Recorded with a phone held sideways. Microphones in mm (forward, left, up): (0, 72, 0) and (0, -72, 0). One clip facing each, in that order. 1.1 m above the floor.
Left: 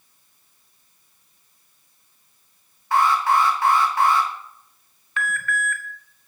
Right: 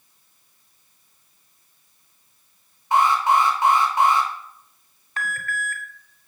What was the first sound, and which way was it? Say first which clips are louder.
An alarm: right 1 dB; 20° right (ahead or behind).